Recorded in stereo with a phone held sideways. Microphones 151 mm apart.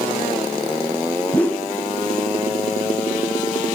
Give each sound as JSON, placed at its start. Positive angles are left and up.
{"t": 1.3, "sound": "a whoosh", "side_deg": 10, "distance_m": 1.0}